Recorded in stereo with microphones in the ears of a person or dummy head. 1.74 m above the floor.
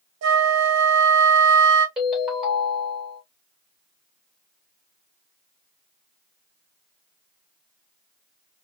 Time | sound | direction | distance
0.2 | a flute | 80° right | 0.6 m
2.0 | a ringtone | centre (ahead or behind) | 2 m